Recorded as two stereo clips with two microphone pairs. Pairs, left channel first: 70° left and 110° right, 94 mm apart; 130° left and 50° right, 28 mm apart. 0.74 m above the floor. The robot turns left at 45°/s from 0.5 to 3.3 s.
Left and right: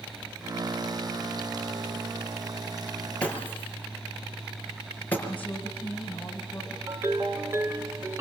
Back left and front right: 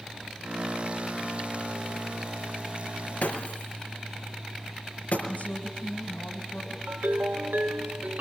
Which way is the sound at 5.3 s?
145° left.